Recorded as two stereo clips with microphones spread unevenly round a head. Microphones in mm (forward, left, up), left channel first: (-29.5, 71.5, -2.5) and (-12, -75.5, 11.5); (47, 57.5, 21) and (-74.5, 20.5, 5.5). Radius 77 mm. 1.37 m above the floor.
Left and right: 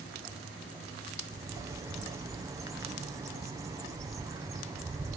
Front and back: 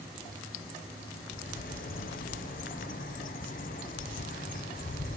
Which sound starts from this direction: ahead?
A bird, at 1.3 s.